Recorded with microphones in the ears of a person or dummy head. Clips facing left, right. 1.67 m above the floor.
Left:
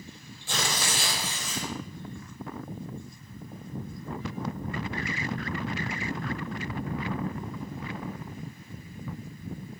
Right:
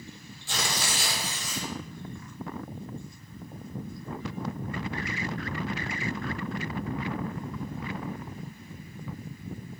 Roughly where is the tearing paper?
Left.